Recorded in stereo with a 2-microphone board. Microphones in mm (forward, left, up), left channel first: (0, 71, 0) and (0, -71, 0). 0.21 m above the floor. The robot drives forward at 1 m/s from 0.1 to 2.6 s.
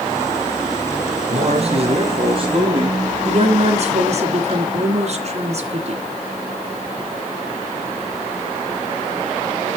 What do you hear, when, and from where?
1.3 s a man speaking: 55° right (ahead or behind), 2.5 m; by 3.0 s 35° right (ahead or behind), 3.5 m
3.2 s a woman speaking: 50° right (ahead or behind), 2.5 m